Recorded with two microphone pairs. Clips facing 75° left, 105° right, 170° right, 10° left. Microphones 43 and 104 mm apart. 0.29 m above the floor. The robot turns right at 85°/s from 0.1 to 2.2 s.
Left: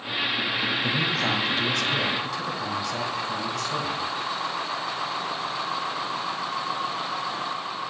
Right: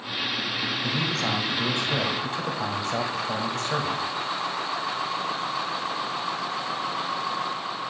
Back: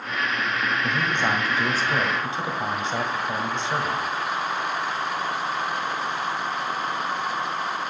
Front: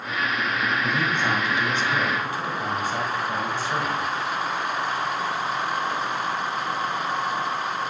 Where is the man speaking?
120° left, 1.4 m; by 4.0 s 125° right, 1.4 m.